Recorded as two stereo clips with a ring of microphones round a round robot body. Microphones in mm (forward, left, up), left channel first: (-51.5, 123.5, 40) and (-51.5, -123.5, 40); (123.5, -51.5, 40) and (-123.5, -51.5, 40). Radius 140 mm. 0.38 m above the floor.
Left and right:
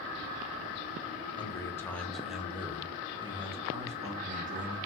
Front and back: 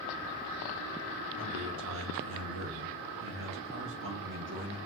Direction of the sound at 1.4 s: 160° left.